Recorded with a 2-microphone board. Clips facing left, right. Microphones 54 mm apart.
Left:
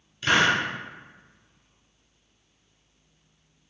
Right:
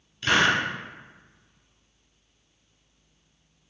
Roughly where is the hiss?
Centre.